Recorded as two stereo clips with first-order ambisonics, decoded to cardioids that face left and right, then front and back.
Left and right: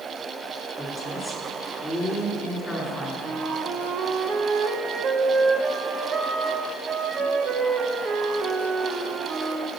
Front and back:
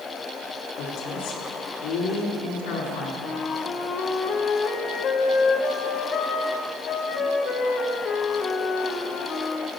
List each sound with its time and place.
0.8 s a woman speaking: 5° left, 2.5 m
3.2 s a flute: 40° right, 0.6 m